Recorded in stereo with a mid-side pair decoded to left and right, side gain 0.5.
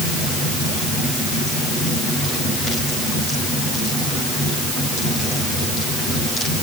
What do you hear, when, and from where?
Only background noise.